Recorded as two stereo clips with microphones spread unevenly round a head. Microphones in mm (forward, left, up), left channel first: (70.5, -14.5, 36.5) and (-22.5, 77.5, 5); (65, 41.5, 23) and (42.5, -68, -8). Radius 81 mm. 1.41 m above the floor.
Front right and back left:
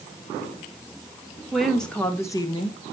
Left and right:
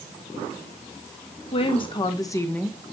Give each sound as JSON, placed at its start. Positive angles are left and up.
{"t": 1.5, "sound": "a woman speaking", "azimuth_deg": 45, "distance_m": 2.5}